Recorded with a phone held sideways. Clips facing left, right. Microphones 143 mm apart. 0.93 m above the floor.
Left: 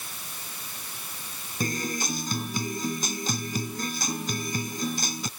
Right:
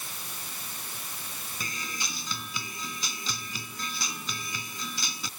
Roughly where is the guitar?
Left.